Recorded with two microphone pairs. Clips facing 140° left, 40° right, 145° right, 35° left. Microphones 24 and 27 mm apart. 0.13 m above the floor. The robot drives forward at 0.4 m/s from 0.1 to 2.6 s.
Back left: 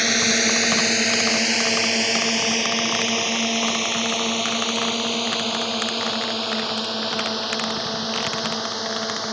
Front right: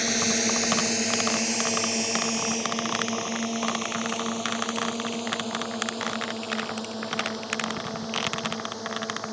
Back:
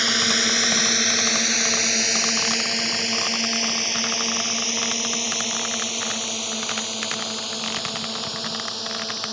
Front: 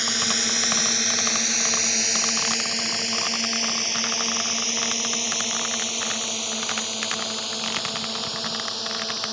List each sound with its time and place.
0.0 s a drone: 165° left; by 9.3 s 125° left